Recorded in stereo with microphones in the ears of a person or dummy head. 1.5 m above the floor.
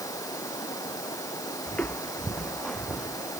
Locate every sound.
0.0 s running water: 15° left (ahead or behind)
1.7 s footsteps: 5° left (ahead or behind); by 3.4 s 5° right (ahead or behind)